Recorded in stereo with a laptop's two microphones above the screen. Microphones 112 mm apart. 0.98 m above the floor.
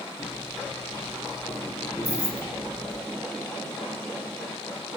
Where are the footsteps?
25° left (ahead or behind), 9 m; by 3.0 s 20° left (ahead or behind), 7.5 m.